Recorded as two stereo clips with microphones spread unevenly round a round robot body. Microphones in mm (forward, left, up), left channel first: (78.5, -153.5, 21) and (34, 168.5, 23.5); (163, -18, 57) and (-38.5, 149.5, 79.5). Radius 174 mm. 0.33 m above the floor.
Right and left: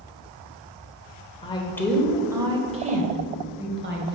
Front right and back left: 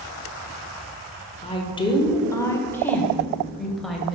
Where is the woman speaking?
35° right, 0.9 m; by 4.2 s 50° left, 1.7 m.